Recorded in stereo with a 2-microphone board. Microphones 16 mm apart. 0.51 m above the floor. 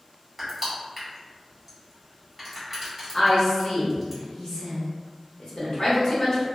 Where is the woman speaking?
50° left (ahead or behind), 1.1 m.